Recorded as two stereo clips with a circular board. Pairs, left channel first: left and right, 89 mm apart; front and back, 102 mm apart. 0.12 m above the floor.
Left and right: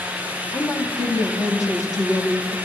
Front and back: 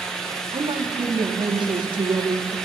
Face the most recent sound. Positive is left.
turn(degrees=140)